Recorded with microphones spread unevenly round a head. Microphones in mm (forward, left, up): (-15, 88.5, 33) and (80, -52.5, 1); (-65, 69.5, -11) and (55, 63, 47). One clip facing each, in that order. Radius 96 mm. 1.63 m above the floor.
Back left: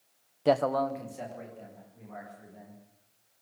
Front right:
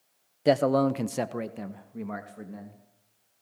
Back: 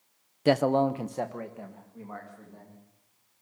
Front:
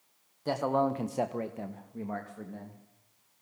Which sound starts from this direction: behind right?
A man speaking, at 0.5 s.